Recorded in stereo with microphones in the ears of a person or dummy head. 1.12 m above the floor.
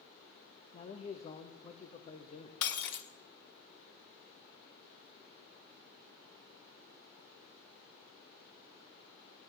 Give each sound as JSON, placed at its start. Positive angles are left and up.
{"t": 0.7, "sound": "a man speaking", "side_deg": 20, "distance_m": 1.0}
{"t": 2.6, "sound": "breaking glass", "side_deg": 65, "distance_m": 1.1}